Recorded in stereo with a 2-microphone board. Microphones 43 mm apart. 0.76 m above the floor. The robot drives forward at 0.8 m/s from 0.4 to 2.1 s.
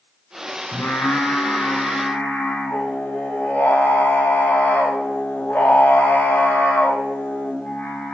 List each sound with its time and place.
0.7 s singing: 85° left, 1.4 m; by 8.1 s 50° left (ahead or behind), 1.8 m